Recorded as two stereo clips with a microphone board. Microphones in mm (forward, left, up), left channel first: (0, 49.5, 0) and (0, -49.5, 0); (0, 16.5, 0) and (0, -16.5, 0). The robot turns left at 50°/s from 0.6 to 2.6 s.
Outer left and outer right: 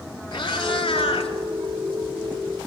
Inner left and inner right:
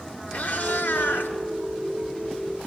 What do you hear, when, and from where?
0.3 s a cat meowing: 130° left, 2.5 m; by 1.3 s 95° left, 2.5 m